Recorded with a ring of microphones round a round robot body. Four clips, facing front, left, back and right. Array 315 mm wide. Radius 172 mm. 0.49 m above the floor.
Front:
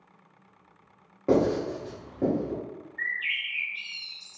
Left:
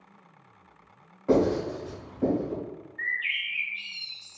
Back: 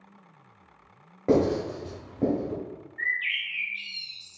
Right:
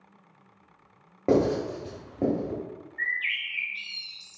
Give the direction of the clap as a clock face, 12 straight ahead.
I don't hear a clap.